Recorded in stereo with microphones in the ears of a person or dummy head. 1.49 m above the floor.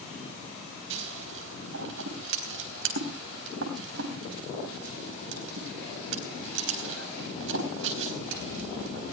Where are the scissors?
65° right (ahead or behind), 3.5 m.